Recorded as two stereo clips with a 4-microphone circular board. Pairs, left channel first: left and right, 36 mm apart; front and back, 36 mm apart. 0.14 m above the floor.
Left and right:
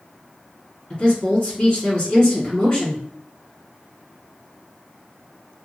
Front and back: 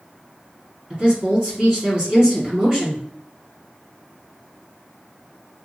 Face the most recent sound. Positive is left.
turn(degrees=140)